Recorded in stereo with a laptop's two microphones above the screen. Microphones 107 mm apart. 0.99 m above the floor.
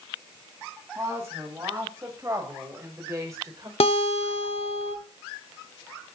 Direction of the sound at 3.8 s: 70° left (ahead or behind).